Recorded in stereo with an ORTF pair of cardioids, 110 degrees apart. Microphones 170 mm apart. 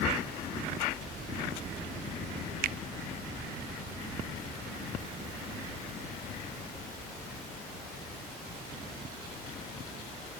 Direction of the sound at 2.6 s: 60° right.